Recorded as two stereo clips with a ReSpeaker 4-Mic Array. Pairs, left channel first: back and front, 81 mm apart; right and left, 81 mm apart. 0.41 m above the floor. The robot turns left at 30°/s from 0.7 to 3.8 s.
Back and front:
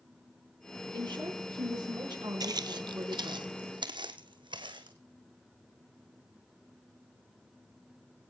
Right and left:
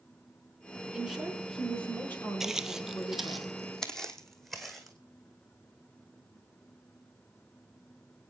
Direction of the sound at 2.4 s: 5° left.